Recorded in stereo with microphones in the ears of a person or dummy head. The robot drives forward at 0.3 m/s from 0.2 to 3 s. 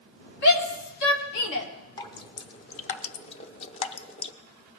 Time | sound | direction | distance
0.4 | a shout | 65° left (ahead or behind) | 2.5 m
2.0 | dripping | 30° left (ahead or behind) | 0.8 m